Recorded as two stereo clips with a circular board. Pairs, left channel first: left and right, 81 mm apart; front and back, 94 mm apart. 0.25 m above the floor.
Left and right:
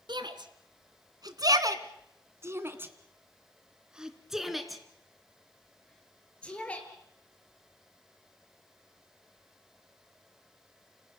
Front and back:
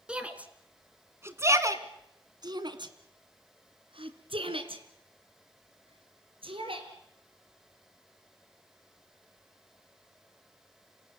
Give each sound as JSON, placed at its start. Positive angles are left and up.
{"t": 0.1, "sound": "a shout", "azimuth_deg": -100, "distance_m": 2.5}